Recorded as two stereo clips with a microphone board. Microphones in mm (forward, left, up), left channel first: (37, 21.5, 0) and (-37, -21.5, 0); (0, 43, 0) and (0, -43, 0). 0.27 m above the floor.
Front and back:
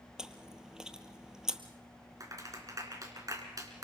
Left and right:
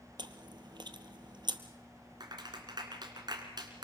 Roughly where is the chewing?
Right.